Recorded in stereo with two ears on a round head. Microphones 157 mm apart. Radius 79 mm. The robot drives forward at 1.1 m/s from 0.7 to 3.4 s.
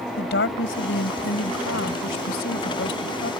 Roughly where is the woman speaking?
Left.